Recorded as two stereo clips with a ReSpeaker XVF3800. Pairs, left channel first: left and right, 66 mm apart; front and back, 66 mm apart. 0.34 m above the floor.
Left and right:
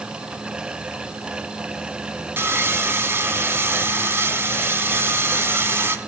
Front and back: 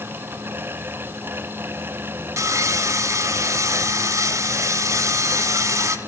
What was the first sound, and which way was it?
Sawing, 140° right.